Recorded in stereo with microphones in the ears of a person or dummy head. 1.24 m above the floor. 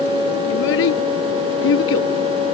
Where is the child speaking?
75° left (ahead or behind).